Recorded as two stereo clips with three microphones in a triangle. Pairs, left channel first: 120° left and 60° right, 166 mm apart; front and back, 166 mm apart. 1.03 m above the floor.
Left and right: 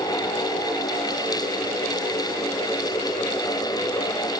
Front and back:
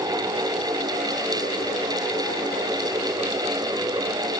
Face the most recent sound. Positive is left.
No sound to turn to.